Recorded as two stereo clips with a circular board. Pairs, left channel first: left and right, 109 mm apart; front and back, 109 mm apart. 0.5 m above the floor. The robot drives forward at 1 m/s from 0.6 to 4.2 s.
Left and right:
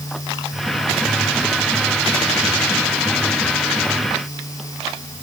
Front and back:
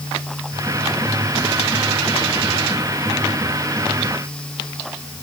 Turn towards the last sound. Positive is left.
No sound to turn to.